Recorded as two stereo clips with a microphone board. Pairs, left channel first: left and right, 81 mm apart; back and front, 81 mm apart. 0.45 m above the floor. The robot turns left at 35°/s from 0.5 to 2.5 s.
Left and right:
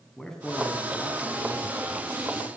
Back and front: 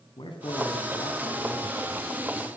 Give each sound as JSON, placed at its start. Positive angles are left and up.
{"t": 0.2, "sound": "a man speaking", "azimuth_deg": 170, "distance_m": 4.5}